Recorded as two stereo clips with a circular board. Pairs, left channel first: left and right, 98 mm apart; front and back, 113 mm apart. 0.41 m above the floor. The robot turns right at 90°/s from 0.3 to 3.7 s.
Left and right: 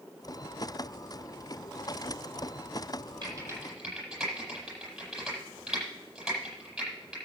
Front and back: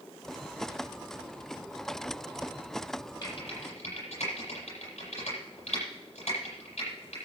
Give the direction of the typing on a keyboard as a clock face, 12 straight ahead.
2 o'clock.